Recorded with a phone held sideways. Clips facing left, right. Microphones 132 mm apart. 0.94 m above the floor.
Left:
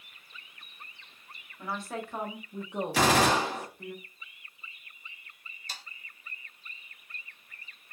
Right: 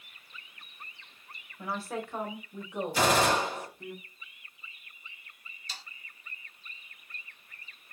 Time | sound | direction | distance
1.6 | a woman speaking | 10° right (ahead or behind) | 1.0 m
2.9 | a gunshot | 85° left | 1.3 m
5.7 | sawing | 45° left (ahead or behind) | 0.6 m